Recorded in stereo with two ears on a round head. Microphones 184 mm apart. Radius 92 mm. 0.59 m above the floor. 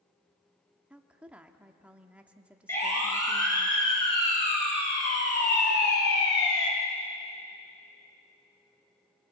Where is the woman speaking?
5° right (ahead or behind), 1.0 m.